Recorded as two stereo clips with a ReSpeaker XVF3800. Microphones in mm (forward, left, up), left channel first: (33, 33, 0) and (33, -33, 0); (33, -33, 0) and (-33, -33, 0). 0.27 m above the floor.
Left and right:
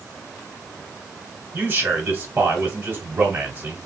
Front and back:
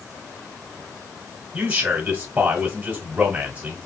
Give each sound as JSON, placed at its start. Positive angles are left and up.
{"t": 1.5, "sound": "a man speaking", "azimuth_deg": -125, "distance_m": 1.4}